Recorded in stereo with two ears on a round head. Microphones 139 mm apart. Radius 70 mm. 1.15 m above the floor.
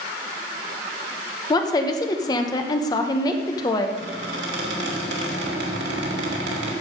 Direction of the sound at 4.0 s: 80° right.